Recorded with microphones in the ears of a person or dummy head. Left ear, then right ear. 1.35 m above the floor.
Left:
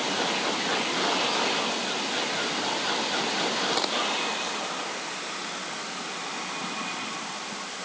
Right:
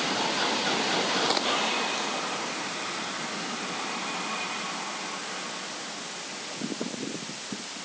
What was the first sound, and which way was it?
Only background noise.